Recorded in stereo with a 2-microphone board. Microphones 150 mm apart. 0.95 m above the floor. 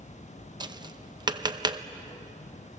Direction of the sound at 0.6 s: 30° right (ahead or behind).